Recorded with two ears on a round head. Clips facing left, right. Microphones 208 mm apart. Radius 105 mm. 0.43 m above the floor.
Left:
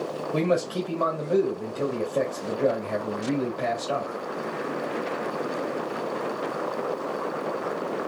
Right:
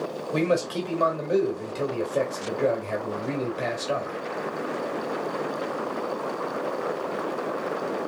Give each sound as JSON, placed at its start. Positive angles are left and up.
{"t": 0.3, "sound": "a man speaking", "side_deg": -25, "distance_m": 2.0}